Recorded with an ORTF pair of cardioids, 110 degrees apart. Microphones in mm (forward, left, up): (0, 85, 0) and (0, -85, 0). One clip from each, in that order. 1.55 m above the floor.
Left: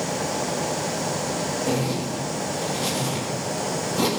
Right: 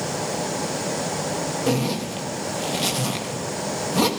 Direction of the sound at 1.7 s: 60° right.